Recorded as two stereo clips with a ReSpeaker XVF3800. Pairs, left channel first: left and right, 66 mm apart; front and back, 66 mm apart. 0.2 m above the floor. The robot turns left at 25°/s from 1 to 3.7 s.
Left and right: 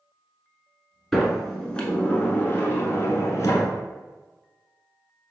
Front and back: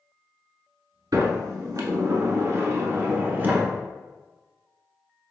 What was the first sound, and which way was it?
A sliding door, straight behind.